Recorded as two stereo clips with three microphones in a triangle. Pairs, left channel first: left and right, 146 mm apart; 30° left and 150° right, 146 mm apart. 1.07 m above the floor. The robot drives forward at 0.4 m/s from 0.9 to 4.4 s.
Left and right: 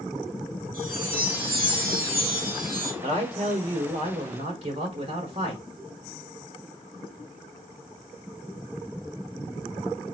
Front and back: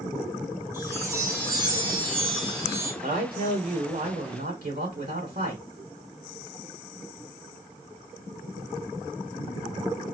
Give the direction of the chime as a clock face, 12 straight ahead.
3 o'clock.